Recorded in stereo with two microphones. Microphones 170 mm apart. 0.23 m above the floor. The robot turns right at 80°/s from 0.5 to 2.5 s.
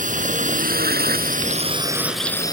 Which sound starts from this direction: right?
A drone, at 0.0 s.